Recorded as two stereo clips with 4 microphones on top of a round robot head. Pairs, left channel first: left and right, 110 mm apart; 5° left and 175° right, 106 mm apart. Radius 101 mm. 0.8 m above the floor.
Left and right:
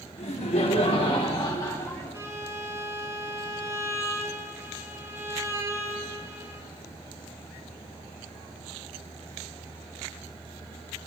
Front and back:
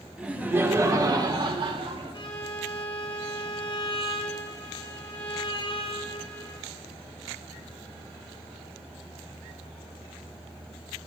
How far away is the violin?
About 1.6 m.